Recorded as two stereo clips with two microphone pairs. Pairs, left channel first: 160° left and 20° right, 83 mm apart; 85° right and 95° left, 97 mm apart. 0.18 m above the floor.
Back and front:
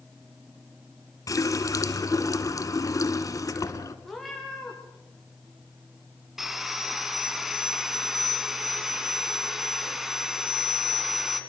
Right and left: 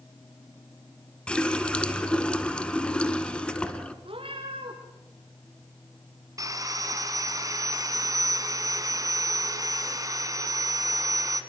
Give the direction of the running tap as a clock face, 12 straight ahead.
5 o'clock.